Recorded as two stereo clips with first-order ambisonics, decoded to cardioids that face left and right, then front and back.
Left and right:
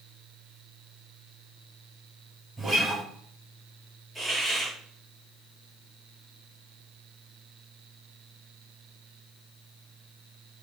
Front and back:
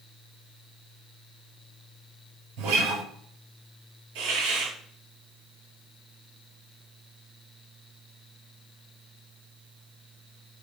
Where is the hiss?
175° left, 7 m.